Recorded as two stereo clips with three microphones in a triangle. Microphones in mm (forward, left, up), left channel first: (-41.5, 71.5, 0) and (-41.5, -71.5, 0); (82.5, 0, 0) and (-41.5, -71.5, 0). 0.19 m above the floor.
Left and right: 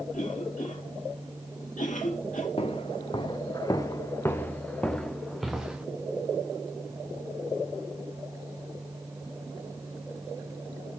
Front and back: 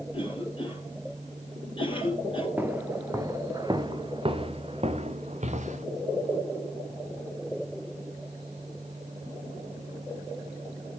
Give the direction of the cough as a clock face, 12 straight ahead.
9 o'clock.